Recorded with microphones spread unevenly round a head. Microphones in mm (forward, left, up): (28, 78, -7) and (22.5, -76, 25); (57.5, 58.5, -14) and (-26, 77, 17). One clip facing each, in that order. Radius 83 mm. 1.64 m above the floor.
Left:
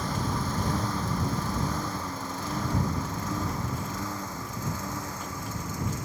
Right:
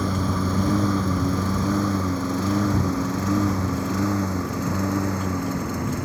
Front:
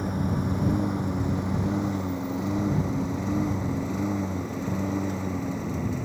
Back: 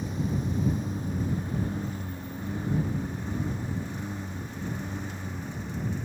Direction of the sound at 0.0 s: 80° right.